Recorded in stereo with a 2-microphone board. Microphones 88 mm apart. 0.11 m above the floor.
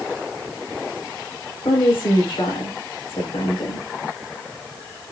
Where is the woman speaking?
80° left, 6.5 m.